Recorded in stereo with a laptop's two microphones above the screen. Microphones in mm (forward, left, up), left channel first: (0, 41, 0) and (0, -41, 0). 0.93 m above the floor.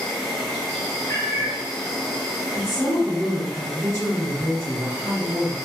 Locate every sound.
0.0 s an insect: centre (ahead or behind), 0.8 m
1.1 s a cat meowing: 40° left (ahead or behind), 1.3 m
2.5 s a woman speaking: 35° right (ahead or behind), 1.0 m